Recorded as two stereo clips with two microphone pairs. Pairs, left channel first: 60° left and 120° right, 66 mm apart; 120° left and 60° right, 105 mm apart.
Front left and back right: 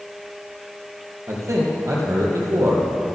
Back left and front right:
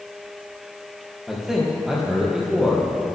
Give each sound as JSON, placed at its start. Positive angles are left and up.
{"t": 1.3, "sound": "a man speaking", "azimuth_deg": -145, "distance_m": 3.5}